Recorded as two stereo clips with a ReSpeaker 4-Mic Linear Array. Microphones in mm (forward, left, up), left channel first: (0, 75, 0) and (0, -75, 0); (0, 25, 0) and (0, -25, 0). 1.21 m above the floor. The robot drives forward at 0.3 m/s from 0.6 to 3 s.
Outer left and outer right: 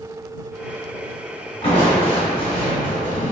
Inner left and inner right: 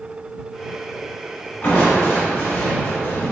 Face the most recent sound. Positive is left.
turn(degrees=45)  # may be behind; listen again after turning